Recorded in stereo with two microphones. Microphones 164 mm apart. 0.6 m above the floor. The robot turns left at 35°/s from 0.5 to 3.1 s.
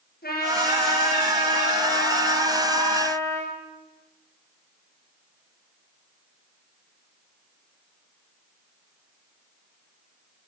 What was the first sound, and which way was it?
A trumpet, 110° left.